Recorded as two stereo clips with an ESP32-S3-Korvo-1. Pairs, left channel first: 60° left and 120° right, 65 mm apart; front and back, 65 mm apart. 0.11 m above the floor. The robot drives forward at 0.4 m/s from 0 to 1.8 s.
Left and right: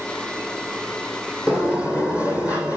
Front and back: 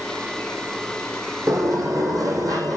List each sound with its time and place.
1.5 s a sliding door: 170° left, 1.6 m